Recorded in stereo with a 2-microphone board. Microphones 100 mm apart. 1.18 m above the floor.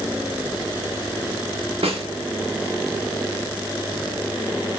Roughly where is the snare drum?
Right.